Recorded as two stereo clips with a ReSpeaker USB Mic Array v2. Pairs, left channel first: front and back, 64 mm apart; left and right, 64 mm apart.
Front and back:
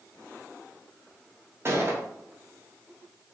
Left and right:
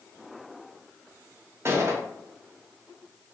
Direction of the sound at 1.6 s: 135° right.